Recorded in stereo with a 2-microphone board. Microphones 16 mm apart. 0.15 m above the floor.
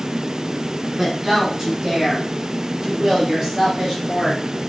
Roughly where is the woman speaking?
Right.